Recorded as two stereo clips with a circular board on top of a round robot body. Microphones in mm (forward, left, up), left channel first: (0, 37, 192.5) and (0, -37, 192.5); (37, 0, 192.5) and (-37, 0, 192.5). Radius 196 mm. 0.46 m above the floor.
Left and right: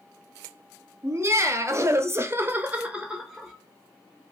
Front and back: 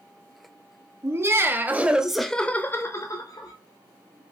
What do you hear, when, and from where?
1.0 s laughter: 135° right, 1.4 m; by 3.5 s straight ahead, 1.3 m